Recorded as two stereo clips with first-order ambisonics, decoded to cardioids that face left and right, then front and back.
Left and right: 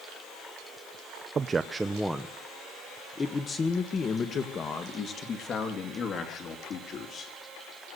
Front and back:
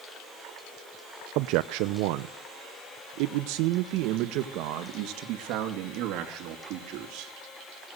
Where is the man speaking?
155° right, 0.8 m; by 7.3 s 145° left, 3.5 m.